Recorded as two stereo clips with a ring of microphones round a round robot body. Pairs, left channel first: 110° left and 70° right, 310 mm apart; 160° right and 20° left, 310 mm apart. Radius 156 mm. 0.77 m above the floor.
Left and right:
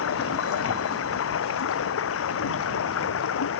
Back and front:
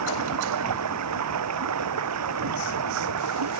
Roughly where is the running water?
Ahead left.